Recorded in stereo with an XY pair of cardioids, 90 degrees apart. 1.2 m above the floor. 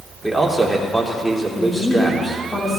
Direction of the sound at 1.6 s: 35° left.